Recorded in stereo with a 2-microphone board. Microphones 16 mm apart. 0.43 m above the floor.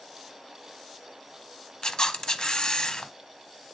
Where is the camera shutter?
45° left (ahead or behind), 0.6 m.